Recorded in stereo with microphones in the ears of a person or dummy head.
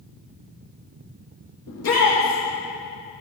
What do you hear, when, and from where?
1.7 s a shout: 70° left (ahead or behind), 1.9 m